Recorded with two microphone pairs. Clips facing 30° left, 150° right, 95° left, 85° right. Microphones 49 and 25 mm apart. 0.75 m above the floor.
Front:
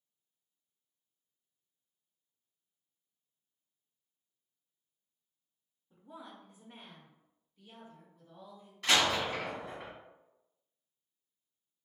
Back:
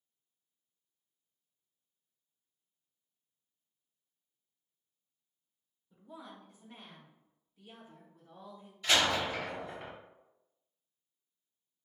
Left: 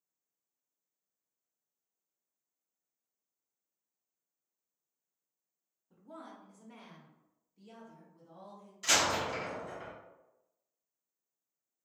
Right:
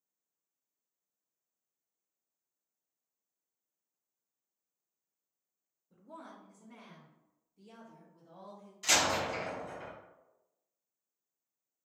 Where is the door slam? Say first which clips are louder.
Even, even; 20° left, 1.3 m.